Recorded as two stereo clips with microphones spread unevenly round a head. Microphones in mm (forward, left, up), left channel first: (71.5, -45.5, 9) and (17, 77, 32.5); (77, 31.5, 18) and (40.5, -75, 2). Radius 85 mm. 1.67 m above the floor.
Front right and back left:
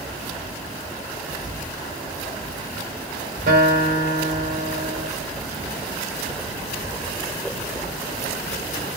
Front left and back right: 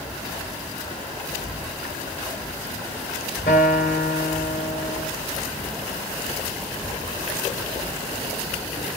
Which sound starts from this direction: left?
A guitar, at 3.5 s.